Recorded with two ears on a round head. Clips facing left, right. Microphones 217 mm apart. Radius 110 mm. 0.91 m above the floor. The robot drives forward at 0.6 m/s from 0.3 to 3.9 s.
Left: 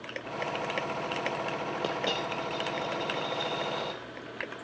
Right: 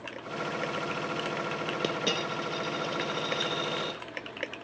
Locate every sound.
1.8 s a dropped coin: 25° right (ahead or behind), 1.1 m